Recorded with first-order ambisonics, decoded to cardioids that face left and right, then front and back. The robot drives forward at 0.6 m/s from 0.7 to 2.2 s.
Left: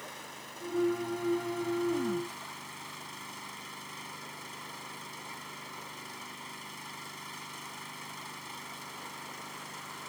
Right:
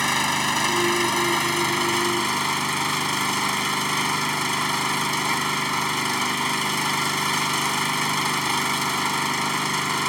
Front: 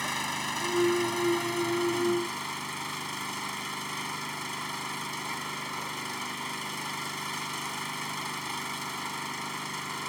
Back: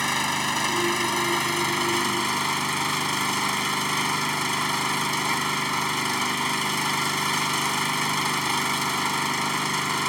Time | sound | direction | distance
0.0 | an engine running | 115° right | ?